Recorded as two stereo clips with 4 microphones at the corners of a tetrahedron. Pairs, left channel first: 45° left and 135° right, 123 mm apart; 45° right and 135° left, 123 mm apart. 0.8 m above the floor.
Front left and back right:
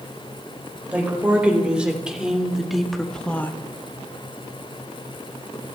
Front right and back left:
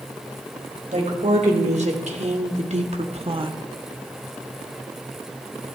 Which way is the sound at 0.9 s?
145° left.